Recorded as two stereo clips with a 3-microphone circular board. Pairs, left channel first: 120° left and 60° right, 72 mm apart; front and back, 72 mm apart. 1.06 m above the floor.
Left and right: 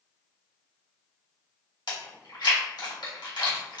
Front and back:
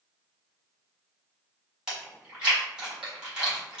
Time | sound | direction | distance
1.9 | chewing | 100° left | 1.6 m